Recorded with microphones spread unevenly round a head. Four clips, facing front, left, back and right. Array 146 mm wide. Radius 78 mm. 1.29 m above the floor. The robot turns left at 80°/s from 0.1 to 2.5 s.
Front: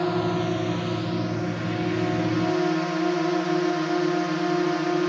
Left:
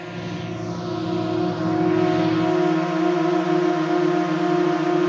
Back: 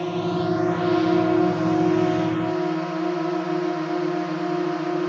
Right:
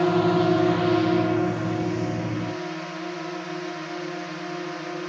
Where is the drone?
80° right; by 5.1 s 85° left.